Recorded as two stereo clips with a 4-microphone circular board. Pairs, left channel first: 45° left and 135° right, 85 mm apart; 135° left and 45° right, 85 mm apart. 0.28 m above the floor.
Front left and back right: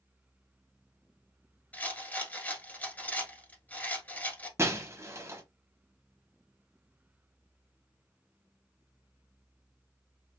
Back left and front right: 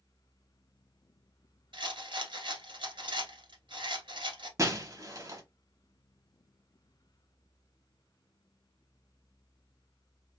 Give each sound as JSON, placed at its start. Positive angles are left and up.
{"t": 1.7, "sound": "a rattle", "azimuth_deg": -25, "distance_m": 1.3}
{"t": 4.6, "sound": "breaking glass", "azimuth_deg": -85, "distance_m": 0.9}